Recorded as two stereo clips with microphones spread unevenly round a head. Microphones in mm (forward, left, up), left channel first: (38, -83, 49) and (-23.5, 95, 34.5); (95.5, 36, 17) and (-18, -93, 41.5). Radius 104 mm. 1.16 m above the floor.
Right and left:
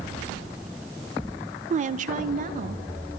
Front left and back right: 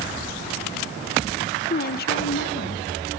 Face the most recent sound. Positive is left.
turn(degrees=65)